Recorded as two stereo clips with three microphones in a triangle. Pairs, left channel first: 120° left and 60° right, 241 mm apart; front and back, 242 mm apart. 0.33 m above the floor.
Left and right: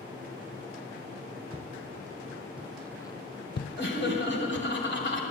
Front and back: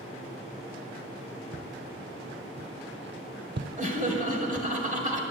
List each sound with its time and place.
1.5 s footsteps: 125° right, 1.2 m; by 4.7 s 105° left, 0.9 m
3.8 s laughter: 130° left, 1.4 m